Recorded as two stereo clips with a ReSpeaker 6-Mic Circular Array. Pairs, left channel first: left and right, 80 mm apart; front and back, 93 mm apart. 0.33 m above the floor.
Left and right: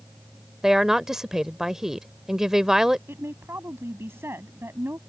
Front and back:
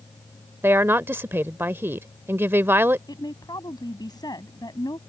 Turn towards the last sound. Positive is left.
turn(degrees=-35)